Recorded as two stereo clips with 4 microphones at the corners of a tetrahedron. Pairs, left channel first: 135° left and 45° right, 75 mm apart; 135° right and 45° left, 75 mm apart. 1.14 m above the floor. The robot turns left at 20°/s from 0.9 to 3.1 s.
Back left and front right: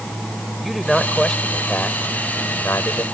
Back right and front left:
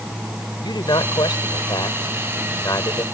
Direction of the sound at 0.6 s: 135° right.